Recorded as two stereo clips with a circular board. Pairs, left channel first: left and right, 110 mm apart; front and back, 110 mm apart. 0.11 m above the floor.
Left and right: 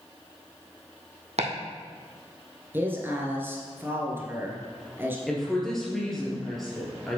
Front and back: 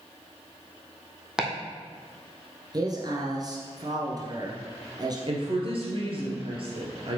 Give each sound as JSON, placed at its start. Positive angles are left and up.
{"t": 1.4, "sound": "chopping", "azimuth_deg": -95, "distance_m": 1.6}
{"t": 2.7, "sound": "a man speaking", "azimuth_deg": -150, "distance_m": 1.4}
{"t": 5.3, "sound": "a woman speaking", "azimuth_deg": 175, "distance_m": 2.5}